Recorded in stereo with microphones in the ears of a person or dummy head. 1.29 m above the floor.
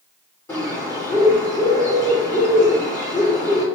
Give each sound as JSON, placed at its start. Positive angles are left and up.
{"t": 0.5, "sound": "a bird", "side_deg": 15, "distance_m": 3.5}